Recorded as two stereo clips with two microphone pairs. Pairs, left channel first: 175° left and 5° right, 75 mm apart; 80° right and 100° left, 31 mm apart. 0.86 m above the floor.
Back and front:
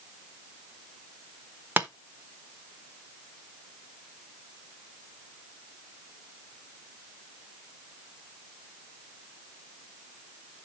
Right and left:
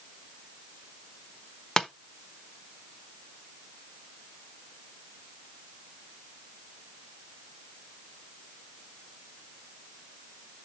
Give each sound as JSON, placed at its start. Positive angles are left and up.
{"t": 1.8, "sound": "tapping", "azimuth_deg": -20, "distance_m": 1.0}